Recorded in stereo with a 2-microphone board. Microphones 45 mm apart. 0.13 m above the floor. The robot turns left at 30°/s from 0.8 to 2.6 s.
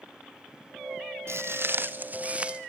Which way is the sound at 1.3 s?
65° right (ahead or behind).